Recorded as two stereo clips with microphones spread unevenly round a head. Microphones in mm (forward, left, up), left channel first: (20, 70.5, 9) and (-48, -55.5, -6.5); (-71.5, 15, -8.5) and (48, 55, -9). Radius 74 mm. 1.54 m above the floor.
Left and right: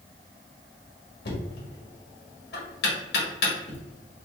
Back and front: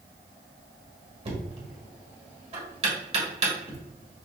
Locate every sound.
1.2 s knocking: 55° left, 1.6 m